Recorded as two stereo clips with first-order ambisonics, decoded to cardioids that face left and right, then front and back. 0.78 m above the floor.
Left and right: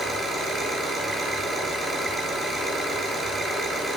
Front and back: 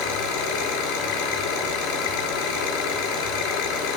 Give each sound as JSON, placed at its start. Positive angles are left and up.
{"t": 0.0, "sound": "an engine running", "azimuth_deg": 5, "distance_m": 8.5}